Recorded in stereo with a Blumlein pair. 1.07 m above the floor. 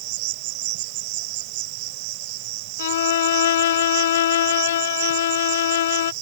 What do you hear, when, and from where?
0.0 s an insect: 45° right
2.8 s a violin: 60° left